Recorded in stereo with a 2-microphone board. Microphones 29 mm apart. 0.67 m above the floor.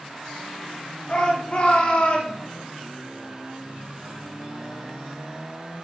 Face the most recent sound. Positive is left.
turn(degrees=55)  # may be behind; listen again after turning